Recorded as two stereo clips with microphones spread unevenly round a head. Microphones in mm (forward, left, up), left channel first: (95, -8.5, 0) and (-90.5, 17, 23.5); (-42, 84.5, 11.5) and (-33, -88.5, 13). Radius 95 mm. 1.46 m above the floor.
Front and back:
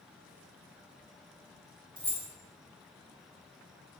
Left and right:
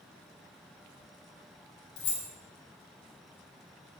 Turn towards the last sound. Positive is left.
turn(degrees=110)